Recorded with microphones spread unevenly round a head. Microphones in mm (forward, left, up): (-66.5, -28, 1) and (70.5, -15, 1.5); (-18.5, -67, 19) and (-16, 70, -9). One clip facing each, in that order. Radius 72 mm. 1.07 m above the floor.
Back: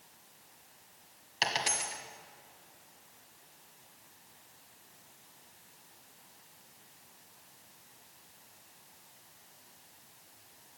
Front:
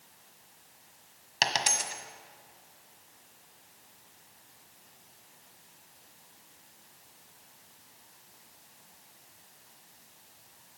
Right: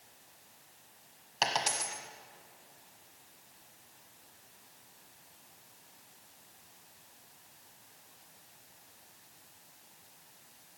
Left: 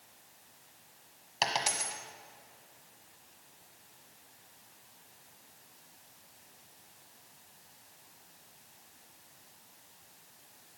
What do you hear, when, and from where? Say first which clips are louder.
1.4 s a dropped coin: front 3 dB, even; straight ahead, 1.4 m